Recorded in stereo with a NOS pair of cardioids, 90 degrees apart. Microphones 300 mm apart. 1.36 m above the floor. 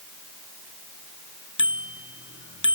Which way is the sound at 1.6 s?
40° left.